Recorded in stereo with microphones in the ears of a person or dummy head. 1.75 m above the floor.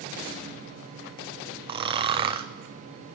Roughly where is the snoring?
Right.